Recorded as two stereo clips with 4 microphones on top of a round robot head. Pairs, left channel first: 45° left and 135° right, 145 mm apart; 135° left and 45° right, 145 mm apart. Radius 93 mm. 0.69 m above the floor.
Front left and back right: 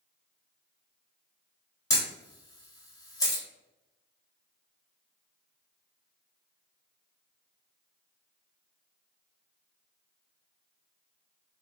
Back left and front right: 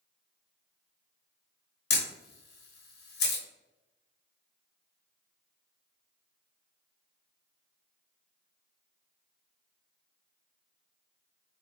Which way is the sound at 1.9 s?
115° left.